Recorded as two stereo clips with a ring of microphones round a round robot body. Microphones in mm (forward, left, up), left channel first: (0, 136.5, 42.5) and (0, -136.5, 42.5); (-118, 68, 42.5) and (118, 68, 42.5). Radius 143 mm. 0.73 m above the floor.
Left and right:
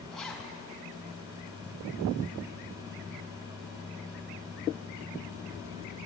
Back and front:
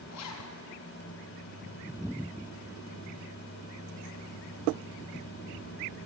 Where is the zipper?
Straight behind, 4.5 m.